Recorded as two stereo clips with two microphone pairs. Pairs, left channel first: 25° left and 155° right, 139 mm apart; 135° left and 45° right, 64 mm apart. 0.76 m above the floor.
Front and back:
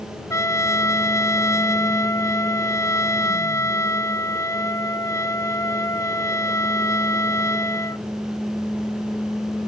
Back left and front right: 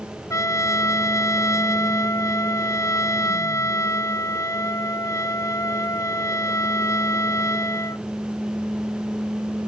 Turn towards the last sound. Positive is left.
turn(degrees=95)